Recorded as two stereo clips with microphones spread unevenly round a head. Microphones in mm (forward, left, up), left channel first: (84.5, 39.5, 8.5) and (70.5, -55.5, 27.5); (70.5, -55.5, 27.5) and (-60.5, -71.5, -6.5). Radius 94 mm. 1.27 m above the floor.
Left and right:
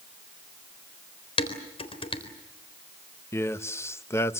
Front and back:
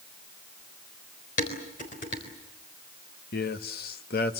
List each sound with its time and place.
1.4 s dishes clattering: 55° left, 3.5 m
3.3 s a man speaking: 20° left, 1.4 m